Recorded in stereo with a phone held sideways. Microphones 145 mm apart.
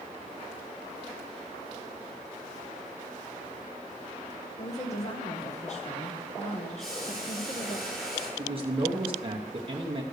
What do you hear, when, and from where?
4.6 s a woman speaking: 50° left (ahead or behind), 1.2 m
6.8 s boiling: centre (ahead or behind), 4.5 m
8.4 s a man speaking: 40° right (ahead or behind), 1.0 m